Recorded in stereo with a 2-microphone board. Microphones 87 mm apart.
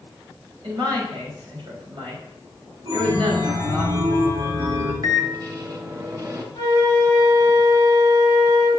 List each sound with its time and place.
0.6 s a woman speaking: 70° right (ahead or behind), 4 m
2.9 s a chime: 60° right (ahead or behind), 1.8 m
5.0 s a microwave: 45° right (ahead or behind), 1.0 m
6.5 s a flute: 50° left (ahead or behind), 3.5 m